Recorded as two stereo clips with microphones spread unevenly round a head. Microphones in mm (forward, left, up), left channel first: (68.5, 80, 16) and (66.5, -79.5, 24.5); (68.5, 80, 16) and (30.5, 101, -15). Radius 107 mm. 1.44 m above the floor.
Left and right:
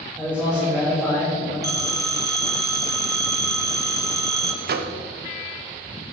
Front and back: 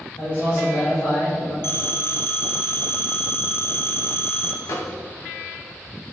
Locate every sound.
0.2 s a man speaking: 10° right, 3 m; by 1.5 s straight ahead, 3.5 m
1.6 s a phone ringing: 20° right, 1.6 m
4.6 s a microwave: 65° right, 0.6 m